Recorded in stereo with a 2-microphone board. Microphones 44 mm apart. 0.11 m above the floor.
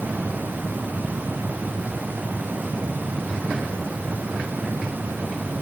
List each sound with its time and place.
Only background noise.